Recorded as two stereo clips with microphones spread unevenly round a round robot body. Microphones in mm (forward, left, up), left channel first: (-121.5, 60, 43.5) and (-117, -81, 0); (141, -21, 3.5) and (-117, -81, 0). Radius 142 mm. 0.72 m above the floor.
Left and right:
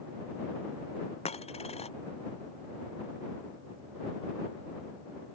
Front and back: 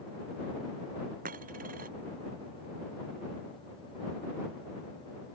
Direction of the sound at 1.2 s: 130° left.